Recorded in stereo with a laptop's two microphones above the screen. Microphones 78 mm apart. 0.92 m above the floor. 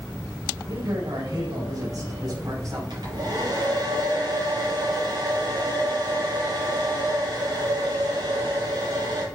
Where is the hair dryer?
65° right (ahead or behind), 5.5 m.